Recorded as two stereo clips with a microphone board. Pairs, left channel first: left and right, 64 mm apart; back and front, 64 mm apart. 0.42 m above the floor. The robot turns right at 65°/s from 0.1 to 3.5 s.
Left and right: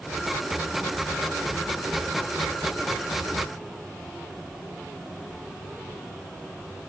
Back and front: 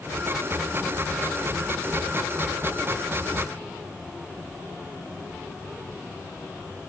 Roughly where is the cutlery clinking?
I don't hear cutlery clinking.